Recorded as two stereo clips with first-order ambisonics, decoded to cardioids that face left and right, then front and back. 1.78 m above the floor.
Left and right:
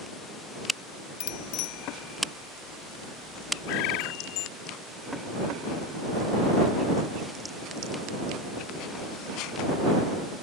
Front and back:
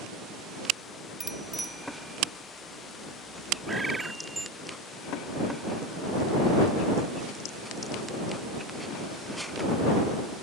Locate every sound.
1.2 s a bicycle bell: 100° left
3.7 s a bird: 100° left